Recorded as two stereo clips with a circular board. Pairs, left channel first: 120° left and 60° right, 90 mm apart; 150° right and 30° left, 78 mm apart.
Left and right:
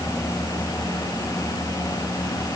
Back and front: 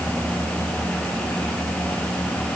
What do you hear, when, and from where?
Only background noise.